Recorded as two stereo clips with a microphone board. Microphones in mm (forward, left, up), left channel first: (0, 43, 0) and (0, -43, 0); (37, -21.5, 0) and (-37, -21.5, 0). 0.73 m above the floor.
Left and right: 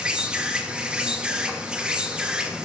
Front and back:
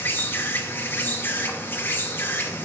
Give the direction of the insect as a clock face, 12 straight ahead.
1 o'clock.